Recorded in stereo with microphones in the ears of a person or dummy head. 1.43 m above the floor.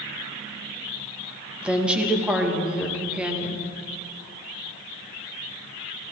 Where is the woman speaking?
5° right (ahead or behind), 1.7 m.